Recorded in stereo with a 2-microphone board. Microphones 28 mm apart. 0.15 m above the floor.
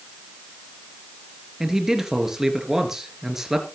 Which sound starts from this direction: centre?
A man speaking, at 1.6 s.